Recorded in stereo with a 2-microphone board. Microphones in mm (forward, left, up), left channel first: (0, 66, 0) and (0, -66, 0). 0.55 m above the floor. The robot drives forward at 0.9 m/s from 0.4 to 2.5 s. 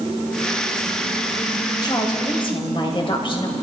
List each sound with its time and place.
1.8 s a woman speaking: 35° left (ahead or behind), 3 m; by 3.5 s 40° left (ahead or behind), 2.5 m